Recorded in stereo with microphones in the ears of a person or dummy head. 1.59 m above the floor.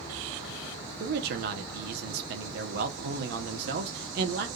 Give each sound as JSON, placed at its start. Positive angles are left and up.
{"t": 1.0, "sound": "a man speaking", "side_deg": -50, "distance_m": 1.0}